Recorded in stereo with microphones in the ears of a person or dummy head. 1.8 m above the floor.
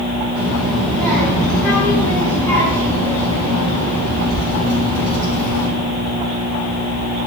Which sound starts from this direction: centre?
A child speaking, at 0.3 s.